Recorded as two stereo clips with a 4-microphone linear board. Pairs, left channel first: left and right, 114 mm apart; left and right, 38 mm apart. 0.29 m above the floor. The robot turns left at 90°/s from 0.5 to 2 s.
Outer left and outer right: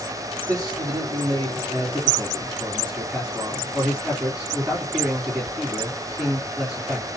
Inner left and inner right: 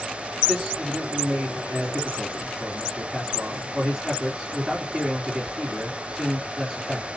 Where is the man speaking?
35° right, 3 m; by 7.1 s 170° right, 3 m.